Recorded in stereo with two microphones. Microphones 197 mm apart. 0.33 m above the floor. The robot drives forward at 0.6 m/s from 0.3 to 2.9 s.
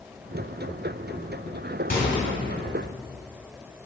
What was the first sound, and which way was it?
A microwave, 55° left (ahead or behind).